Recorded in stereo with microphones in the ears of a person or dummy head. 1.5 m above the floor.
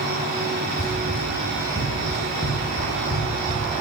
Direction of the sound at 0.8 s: 20° left (ahead or behind).